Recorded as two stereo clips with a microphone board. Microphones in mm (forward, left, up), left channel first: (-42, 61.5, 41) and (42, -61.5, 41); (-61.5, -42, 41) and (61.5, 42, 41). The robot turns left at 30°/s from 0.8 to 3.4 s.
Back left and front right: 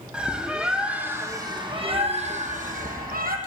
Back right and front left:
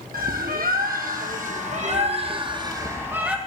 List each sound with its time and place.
0.1 s a bird: 30° left, 2 m; by 3.4 s 50° right, 2 m